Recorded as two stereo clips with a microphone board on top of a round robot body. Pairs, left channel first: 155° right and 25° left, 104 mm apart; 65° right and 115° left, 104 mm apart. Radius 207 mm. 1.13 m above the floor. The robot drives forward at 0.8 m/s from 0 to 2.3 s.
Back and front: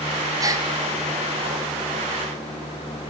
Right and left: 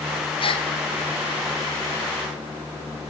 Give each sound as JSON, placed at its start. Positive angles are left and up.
{"t": 0.4, "sound": "a gasp", "azimuth_deg": -30, "distance_m": 1.5}